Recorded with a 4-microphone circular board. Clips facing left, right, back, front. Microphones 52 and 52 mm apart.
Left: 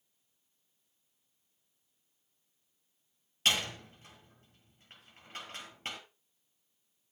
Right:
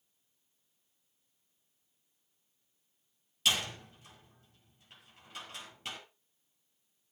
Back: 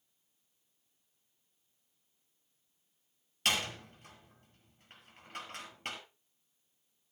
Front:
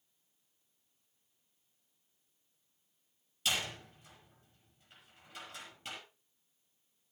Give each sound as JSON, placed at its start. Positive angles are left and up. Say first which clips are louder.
{"t": 3.5, "sound": "a door slam", "louder": "left 1 dB, back 3 dB", "azimuth_deg": 140, "distance_m": 6.0}